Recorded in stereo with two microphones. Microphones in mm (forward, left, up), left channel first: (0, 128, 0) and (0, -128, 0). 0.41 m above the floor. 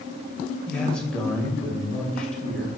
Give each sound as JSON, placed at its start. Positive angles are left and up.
{"t": 0.7, "sound": "a man speaking", "side_deg": 5, "distance_m": 1.7}